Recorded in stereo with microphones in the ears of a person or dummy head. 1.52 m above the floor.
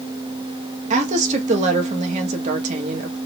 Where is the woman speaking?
40° right (ahead or behind), 0.8 m.